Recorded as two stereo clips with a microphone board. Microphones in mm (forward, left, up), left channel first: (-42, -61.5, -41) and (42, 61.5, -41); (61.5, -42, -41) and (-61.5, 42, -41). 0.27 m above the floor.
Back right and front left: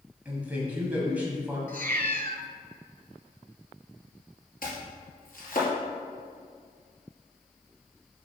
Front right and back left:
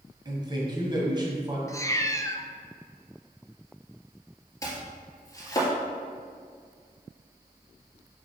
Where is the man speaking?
125° left, 1.4 m.